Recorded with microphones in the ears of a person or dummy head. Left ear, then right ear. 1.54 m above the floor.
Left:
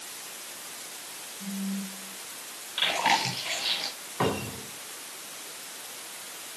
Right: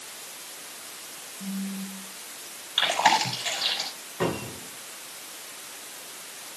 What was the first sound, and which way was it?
A phone buzzing, 45° right (ahead or behind).